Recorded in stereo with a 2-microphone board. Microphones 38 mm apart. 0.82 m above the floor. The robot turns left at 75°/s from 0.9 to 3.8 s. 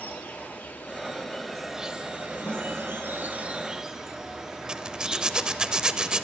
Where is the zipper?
20° right (ahead or behind), 0.5 m.